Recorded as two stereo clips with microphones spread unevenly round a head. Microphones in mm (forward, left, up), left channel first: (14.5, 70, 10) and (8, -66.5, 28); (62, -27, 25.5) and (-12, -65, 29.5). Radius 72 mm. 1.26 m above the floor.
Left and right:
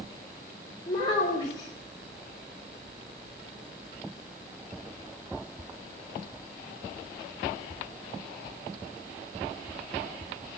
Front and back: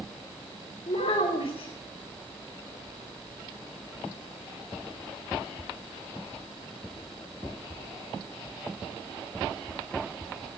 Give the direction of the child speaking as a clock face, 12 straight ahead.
11 o'clock.